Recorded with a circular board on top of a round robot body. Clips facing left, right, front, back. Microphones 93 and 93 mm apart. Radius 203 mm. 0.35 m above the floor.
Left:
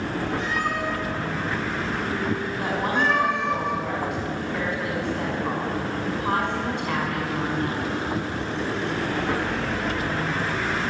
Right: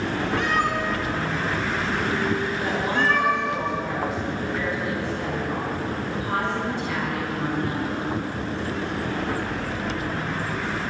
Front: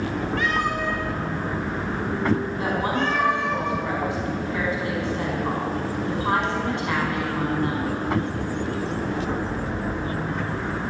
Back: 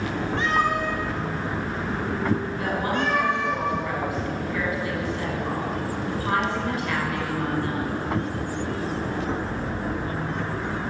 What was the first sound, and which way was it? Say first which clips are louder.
A cat meowing: right 3 dB, back 3 dB; 120° right.